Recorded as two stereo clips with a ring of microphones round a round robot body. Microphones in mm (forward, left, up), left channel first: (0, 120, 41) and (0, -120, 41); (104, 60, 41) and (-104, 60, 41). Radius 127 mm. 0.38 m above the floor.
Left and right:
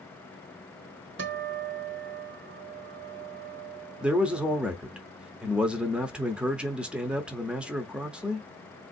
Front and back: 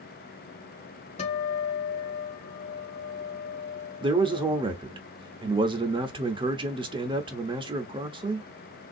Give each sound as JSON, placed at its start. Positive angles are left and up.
{"t": 1.2, "sound": "a guitar", "azimuth_deg": -60, "distance_m": 1.2}
{"t": 4.0, "sound": "a man speaking", "azimuth_deg": -170, "distance_m": 0.8}